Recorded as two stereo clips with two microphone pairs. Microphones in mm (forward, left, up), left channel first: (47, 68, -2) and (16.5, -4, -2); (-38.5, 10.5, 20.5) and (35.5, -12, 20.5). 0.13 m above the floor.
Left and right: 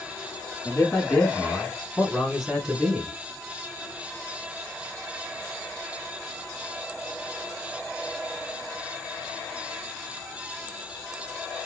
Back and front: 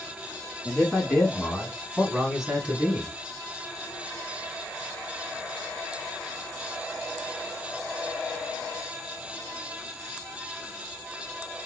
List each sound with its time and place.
0.7 s a man speaking: 115° left, 1.5 m; by 3.1 s 55° right, 1.4 m